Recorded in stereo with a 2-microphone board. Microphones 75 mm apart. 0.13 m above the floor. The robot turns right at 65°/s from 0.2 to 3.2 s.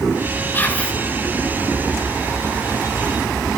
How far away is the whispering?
About 2 m.